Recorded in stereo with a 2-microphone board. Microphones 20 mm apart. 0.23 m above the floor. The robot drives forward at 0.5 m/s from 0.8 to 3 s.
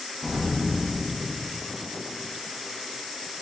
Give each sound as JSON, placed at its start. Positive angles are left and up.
{"t": 0.2, "sound": "an explosion", "side_deg": 25, "distance_m": 4.5}